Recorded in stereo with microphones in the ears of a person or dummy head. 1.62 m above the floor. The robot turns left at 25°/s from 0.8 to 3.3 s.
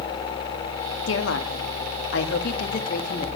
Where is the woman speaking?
95° left, 1.2 m; by 3.3 s 40° left, 1.2 m.